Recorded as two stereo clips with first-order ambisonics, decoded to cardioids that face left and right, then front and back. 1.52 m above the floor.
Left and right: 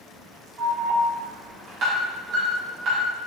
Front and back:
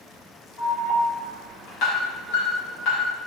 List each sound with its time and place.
0.6 s an alarm: 40° right, 3.5 m